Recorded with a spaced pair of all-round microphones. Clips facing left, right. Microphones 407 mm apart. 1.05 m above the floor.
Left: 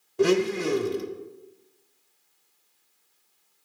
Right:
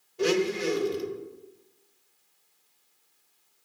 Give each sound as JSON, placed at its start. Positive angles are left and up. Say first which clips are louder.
{"t": 0.2, "sound": "a blender", "louder": "left 3 dB", "side_deg": 65, "distance_m": 0.7}